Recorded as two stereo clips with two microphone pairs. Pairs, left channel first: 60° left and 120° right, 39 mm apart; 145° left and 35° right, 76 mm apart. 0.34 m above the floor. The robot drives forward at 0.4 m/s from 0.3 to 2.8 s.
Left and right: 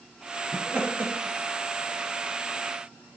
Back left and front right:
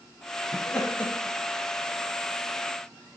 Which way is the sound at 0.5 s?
140° right.